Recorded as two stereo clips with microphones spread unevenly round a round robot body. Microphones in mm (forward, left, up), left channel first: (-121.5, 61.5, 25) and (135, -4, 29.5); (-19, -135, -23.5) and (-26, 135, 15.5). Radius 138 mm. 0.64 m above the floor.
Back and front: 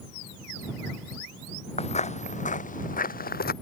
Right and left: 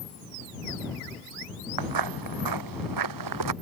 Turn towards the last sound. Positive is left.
turn(degrees=105)